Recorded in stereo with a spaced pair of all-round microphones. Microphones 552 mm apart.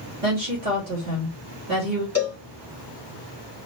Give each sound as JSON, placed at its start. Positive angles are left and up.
{"t": 0.2, "sound": "a woman speaking", "side_deg": -80, "distance_m": 1.9}
{"t": 2.1, "sound": "a cowbell", "side_deg": 25, "distance_m": 0.9}